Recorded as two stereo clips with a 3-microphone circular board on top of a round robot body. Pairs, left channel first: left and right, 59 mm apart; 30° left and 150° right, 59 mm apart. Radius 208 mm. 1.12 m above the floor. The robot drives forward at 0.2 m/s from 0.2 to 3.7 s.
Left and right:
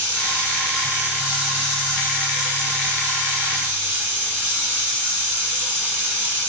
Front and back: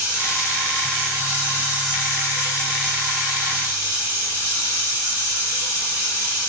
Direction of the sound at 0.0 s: 115° right.